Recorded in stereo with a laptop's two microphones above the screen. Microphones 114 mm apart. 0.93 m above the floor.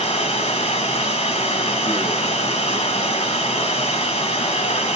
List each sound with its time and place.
0.0 s running water: 70° left (ahead or behind), 1.7 m